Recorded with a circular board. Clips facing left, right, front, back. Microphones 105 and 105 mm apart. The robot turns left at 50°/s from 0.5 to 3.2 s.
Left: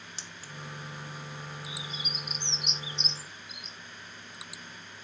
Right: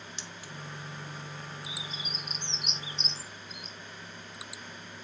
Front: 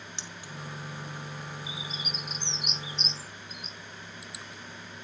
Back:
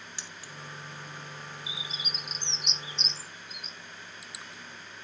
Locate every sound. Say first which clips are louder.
0.2 s keys jangling: right 2 dB, front 2 dB; 60° left, 0.7 m; by 0.5 s 55° left, 0.7 m
1.7 s a bird: left 1 dB, front 3 dB; 20° right, 1.8 m; by 3.8 s 100° right, 1.8 m